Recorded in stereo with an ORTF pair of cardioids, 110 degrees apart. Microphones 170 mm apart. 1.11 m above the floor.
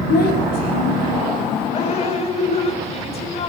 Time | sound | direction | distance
0.1 | a child speaking | 70° left | 5.5 m
1.7 | dripping | 40° left | 4 m